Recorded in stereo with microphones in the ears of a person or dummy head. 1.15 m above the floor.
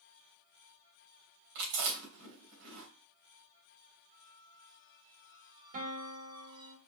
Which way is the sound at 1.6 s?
70° right (ahead or behind).